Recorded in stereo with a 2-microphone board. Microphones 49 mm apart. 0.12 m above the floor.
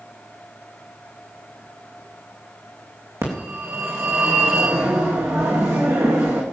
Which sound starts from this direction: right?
A phone ringing, at 3.2 s.